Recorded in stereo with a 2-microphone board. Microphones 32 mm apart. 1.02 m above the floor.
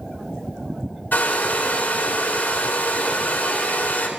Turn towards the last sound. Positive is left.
turn(degrees=75)  # may be behind; listen again after turning